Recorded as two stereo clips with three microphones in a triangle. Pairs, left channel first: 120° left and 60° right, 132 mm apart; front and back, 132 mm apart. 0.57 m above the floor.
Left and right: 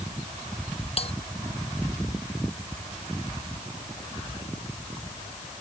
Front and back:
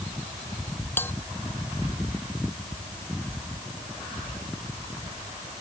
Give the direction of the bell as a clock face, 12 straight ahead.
10 o'clock.